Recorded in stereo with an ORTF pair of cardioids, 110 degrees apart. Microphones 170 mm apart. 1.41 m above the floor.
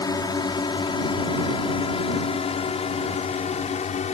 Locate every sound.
0.0 s a drone: 25° left; by 4.1 s 45° left